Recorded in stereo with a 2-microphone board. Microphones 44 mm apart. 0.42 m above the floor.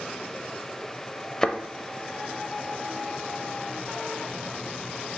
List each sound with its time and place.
1.4 s a thud: 15° left (ahead or behind), 0.5 m